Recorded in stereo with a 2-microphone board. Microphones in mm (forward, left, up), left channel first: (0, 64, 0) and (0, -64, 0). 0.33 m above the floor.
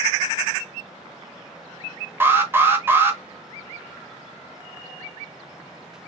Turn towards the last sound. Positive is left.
turn(degrees=-15)  # may be behind; listen again after turning